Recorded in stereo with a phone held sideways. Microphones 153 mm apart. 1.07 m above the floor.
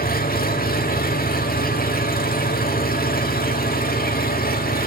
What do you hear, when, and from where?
0.0 s an engine running: 75° left (ahead or behind), 1.9 m